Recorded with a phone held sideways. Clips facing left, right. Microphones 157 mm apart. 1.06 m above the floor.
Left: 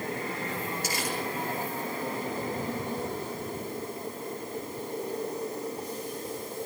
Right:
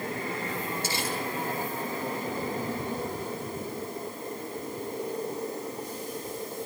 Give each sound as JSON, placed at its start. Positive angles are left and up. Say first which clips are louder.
{"t": 0.8, "sound": "crumpling", "louder": "right 1 dB", "side_deg": -25, "distance_m": 9.5}